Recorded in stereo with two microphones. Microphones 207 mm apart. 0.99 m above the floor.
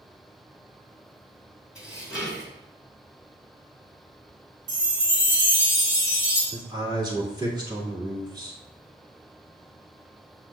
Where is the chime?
70° right (ahead or behind), 2 m.